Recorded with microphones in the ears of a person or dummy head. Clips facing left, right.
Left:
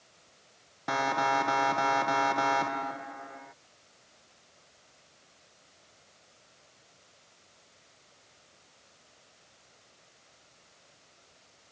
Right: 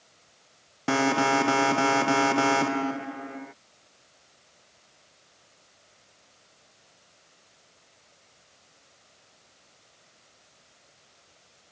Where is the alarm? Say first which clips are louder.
Right 6 dB; 40° right (ahead or behind).